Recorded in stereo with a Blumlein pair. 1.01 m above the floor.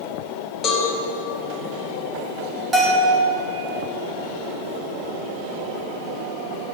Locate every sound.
0.6 s a cowbell: 25° left, 1.4 m
2.7 s a bell: 20° right, 1.3 m